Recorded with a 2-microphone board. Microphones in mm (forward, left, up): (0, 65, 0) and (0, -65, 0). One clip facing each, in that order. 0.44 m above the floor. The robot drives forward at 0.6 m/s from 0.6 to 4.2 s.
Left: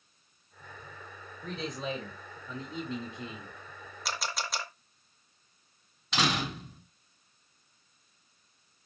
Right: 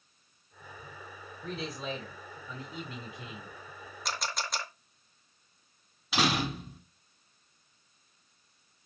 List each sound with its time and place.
1.4 s a man speaking: 20° left (ahead or behind), 2.5 m; by 3.5 s 30° left (ahead or behind), 1.6 m
4.0 s a camera shutter: centre (ahead or behind), 1.2 m
6.1 s a door slam: 5° right (ahead or behind), 2.5 m